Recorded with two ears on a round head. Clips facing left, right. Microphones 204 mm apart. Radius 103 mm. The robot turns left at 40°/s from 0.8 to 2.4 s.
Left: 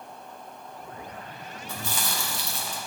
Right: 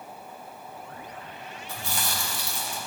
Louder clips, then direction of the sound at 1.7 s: Left 1 dB; 75° left (ahead or behind).